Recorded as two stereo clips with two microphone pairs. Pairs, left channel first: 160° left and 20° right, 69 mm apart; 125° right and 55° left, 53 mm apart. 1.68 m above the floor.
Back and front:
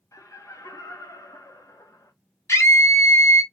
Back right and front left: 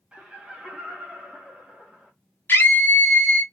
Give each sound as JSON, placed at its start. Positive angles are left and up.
{"t": 0.1, "sound": "laughter", "azimuth_deg": 125, "distance_m": 0.9}
{"t": 2.5, "sound": "a scream", "azimuth_deg": -165, "distance_m": 1.0}